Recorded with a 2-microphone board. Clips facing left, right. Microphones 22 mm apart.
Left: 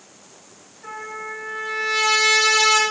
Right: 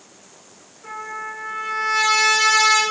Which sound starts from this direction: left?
A trumpet, at 0.8 s.